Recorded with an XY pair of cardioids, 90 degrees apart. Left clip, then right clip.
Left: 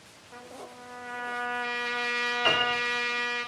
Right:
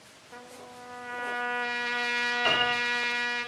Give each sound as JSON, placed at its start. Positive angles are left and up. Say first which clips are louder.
{"t": 0.3, "sound": "a trumpet", "louder": "left 1 dB", "azimuth_deg": -15, "distance_m": 1.5}
{"t": 2.5, "sound": "a piano", "louder": "left 1 dB", "azimuth_deg": 10, "distance_m": 5.0}